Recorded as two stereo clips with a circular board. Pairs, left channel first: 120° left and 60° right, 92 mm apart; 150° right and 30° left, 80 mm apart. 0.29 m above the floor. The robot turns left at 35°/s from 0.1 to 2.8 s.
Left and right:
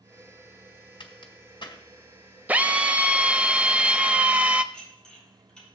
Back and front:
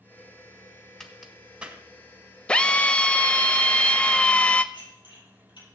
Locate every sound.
1.0 s a crack: 130° left, 1.8 m; by 1.8 s 100° left, 1.8 m
2.5 s a drill: 95° right, 0.6 m; by 4.6 s 105° right, 0.6 m
4.7 s dishes clattering: 155° right, 5.5 m